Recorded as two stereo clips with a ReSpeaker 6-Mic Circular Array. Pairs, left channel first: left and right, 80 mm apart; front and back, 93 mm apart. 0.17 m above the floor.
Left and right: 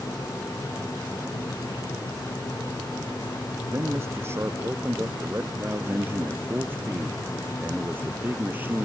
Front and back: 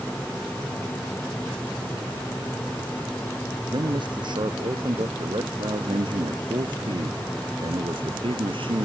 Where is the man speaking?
145° right; by 8.9 s 155° right.